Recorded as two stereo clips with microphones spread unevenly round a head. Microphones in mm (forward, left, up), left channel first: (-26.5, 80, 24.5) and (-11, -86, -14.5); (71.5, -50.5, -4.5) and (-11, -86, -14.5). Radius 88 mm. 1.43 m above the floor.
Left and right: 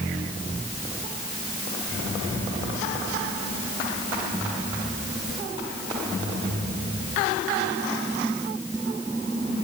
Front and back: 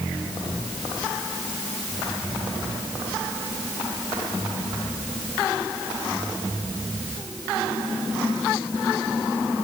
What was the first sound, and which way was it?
Only background noise.